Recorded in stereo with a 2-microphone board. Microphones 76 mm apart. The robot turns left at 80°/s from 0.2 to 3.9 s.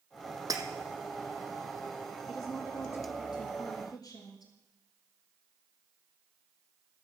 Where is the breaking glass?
50° right (ahead or behind), 1.5 m; by 0.6 s 60° right (ahead or behind), 1.5 m.